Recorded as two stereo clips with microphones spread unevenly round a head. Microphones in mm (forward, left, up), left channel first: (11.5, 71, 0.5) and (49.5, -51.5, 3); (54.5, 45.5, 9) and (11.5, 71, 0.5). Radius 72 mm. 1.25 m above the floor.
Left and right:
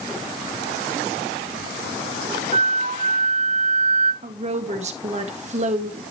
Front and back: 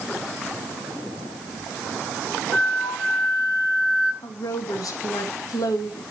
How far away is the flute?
About 5.5 m.